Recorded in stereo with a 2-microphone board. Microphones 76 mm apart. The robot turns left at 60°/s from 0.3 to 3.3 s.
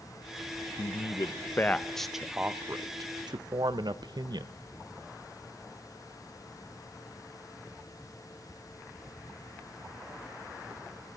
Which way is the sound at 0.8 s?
65° left (ahead or behind).